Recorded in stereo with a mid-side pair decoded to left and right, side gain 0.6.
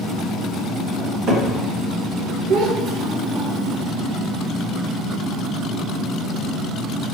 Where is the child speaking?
70° right, 1.0 m.